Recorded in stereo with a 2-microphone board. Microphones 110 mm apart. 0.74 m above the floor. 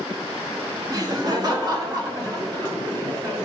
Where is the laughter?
35° right (ahead or behind), 1.4 m; by 3.5 s 40° right (ahead or behind), 4 m.